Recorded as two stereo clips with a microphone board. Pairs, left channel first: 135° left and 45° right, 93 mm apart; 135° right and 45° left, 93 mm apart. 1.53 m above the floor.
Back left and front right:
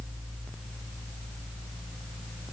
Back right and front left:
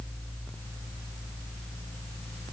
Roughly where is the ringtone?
I don't hear a ringtone.